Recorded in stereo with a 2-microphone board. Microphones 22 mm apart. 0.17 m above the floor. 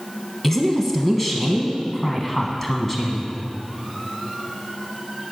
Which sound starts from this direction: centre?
A woman speaking, at 0.4 s.